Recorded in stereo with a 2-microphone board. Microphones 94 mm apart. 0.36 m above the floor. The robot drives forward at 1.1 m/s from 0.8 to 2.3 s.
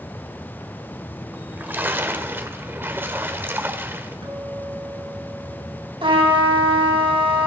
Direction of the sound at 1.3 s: 15° right (ahead or behind).